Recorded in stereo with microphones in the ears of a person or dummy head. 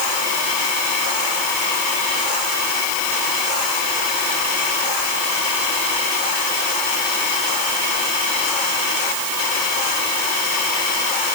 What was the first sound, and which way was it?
Only background noise.